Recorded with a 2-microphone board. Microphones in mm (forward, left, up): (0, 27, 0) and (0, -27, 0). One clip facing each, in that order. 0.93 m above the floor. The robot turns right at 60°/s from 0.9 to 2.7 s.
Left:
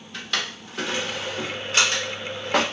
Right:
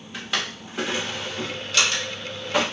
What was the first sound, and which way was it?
A drawer, 10° right (ahead or behind).